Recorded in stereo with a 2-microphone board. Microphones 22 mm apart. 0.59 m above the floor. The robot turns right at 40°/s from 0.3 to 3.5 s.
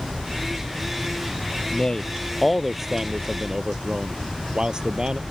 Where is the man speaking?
145° left; by 5.2 s 145° right.